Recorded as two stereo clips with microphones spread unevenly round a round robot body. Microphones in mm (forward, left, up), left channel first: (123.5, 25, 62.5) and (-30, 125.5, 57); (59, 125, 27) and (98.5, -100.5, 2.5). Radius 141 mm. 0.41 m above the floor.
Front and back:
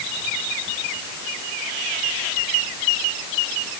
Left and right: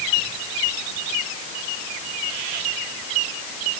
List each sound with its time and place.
Only background noise.